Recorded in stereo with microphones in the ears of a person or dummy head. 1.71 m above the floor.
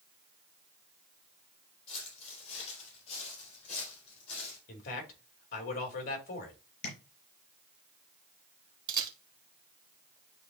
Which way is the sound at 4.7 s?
45° left (ahead or behind).